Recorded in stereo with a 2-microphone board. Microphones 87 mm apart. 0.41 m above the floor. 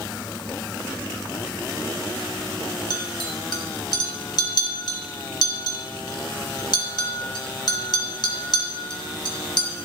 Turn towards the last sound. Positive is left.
turn(degrees=55)  # may be behind; listen again after turning